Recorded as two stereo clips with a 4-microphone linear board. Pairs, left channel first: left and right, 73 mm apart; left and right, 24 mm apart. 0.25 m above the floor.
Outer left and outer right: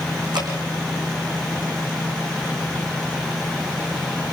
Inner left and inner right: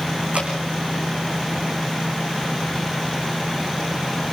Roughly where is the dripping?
Right.